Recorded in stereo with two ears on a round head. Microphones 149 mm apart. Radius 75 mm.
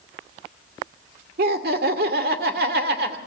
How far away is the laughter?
About 2 m.